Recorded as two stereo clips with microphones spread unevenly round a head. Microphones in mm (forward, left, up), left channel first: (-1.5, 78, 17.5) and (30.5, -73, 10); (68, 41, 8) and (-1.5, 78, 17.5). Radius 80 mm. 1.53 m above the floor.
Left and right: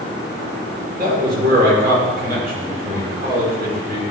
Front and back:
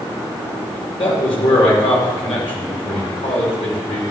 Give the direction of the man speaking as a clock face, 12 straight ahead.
2 o'clock.